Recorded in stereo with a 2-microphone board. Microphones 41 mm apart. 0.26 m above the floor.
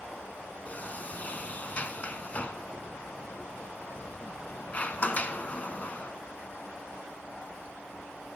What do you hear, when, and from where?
0.7 s a sliding door: 40° left (ahead or behind), 0.6 m